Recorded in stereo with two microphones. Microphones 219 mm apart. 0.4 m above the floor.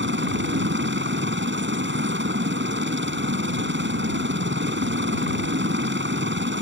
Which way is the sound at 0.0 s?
55° right (ahead or behind).